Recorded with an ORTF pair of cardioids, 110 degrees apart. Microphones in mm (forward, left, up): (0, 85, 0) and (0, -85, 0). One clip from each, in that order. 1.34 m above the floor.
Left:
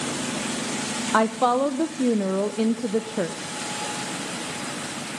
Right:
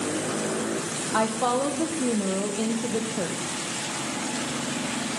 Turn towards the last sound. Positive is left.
turn(degrees=45)